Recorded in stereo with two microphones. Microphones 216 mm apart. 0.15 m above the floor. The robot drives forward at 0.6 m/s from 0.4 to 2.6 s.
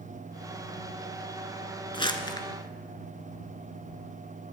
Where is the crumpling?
25° left (ahead or behind), 0.8 m; by 2.5 s 20° left (ahead or behind), 1.0 m.